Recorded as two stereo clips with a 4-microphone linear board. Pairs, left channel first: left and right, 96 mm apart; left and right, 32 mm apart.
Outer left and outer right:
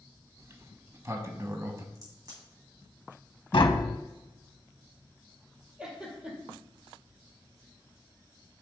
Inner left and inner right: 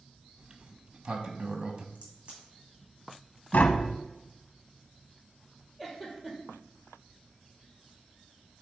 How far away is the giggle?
About 1.9 m.